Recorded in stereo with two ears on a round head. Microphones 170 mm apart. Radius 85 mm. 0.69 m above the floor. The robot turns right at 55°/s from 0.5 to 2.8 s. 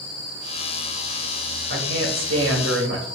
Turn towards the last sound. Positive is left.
turn(degrees=-65)